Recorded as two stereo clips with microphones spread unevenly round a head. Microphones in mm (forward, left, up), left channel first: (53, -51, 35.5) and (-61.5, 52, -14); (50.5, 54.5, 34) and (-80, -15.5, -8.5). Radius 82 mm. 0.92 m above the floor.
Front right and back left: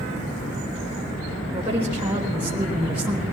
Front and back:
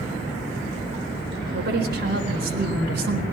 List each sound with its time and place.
1.5 s a woman speaking: 150° right, 4 m; by 3.2 s 140° right, 4.5 m